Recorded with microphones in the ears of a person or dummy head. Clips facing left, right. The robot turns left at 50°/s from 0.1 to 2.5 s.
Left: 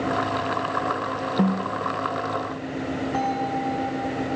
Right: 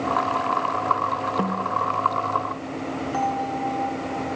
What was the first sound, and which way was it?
A snare drum, 15° left (ahead or behind).